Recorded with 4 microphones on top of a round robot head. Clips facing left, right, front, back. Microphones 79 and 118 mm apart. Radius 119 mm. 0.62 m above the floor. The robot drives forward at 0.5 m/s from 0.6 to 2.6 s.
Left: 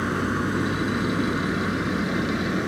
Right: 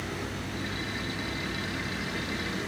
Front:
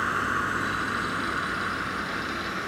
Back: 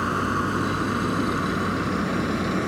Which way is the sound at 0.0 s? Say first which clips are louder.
Left 11 dB, back 4 dB; 120° left.